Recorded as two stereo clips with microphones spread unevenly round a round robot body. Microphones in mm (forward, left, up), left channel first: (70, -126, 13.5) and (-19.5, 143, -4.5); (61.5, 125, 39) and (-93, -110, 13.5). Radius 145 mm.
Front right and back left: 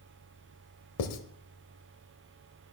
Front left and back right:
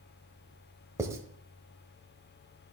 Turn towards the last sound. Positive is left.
turn(degrees=-50)